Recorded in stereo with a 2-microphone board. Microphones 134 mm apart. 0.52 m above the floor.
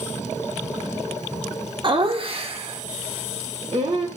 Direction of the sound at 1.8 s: 40° right (ahead or behind).